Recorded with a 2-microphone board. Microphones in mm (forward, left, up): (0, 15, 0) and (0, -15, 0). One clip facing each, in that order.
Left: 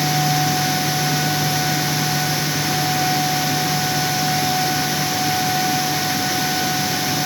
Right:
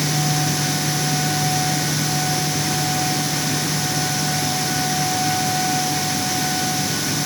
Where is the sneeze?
No sneeze in this recording.